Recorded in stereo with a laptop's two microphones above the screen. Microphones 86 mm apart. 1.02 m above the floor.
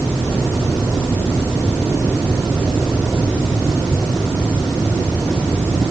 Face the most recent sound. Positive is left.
No sound to turn to.